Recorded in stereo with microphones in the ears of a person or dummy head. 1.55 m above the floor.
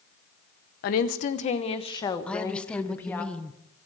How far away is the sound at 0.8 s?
About 1.1 m.